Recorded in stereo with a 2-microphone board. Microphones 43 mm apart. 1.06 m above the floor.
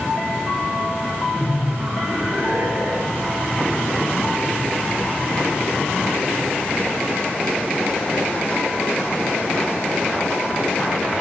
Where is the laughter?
85° right, 3.5 m.